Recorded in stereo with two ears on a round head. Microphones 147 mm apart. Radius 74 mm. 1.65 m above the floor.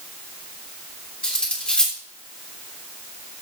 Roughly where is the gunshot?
I don't hear a gunshot.